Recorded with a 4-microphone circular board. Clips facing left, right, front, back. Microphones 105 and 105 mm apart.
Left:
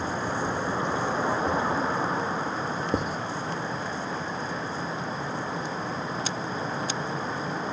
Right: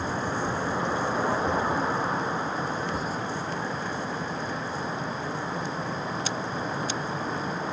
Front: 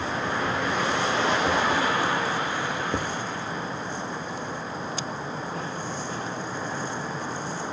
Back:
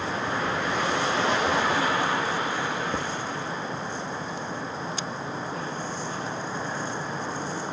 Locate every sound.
2.9 s writing: 70° left, 0.7 m